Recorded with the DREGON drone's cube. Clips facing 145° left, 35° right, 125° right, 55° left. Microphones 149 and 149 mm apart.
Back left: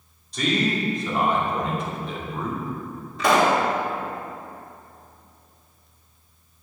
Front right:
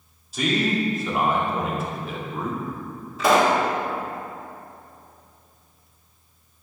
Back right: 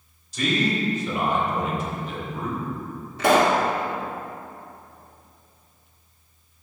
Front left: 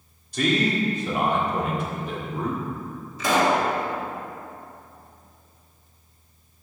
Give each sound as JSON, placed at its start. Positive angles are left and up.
{"t": 0.3, "sound": "a man speaking", "azimuth_deg": 50, "distance_m": 1.7}
{"t": 3.2, "sound": "a pop", "azimuth_deg": -120, "distance_m": 1.1}